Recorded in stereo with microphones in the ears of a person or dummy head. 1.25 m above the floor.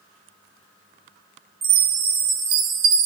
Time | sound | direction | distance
1.6 | a chime | 30° right (ahead or behind) | 0.7 m